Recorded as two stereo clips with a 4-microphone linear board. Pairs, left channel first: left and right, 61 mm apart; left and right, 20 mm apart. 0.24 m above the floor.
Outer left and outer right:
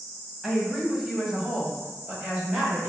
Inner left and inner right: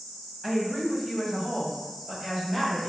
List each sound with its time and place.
0.4 s a woman speaking: 5° right (ahead or behind), 1.3 m; by 2.9 s 10° right (ahead or behind), 1.4 m